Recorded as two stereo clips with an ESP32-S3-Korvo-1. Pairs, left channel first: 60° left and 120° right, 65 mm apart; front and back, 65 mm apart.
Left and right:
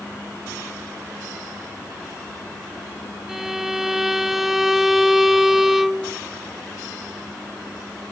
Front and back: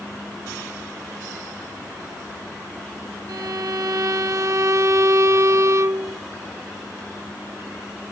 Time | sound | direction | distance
3.3 | a violin | 155° left | ?